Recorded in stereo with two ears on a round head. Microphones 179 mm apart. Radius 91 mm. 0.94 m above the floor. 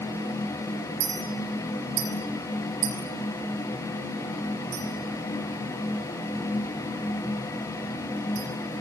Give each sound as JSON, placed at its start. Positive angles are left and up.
{"t": 1.0, "sound": "a clink", "side_deg": -85, "distance_m": 6.5}